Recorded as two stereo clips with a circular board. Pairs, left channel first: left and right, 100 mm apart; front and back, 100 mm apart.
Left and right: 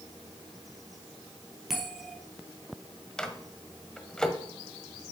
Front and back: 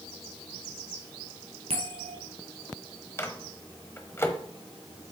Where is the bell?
Straight behind, 1.8 m.